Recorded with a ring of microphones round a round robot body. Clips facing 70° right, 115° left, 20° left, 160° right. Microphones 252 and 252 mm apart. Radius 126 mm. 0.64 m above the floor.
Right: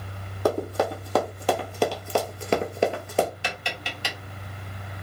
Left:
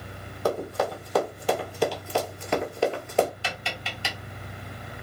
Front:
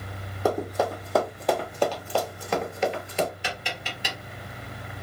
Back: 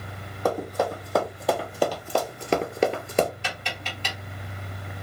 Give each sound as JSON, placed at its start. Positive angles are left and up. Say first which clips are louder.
{"t": 0.5, "sound": "running footsteps", "louder": "right 3 dB, even", "azimuth_deg": -60, "distance_m": 1.6}
{"t": 3.4, "sound": "tapping", "louder": "right 2 dB, front 1 dB", "azimuth_deg": -35, "distance_m": 1.1}